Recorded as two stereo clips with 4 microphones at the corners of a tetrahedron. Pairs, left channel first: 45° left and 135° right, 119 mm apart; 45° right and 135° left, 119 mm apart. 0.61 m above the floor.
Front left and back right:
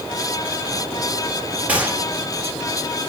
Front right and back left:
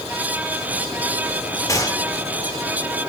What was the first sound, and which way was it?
A gunshot, 65° right.